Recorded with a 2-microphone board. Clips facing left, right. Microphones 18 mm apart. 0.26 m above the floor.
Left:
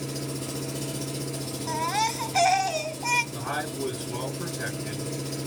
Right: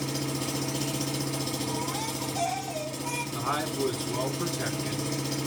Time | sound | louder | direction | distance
0.0 | an engine running | right 2 dB | 55° right (ahead or behind) | 1.1 m
1.7 | a baby crying | left 5 dB | 60° left (ahead or behind) | 0.5 m
3.3 | a man speaking | right 2 dB | 20° right (ahead or behind) | 2.5 m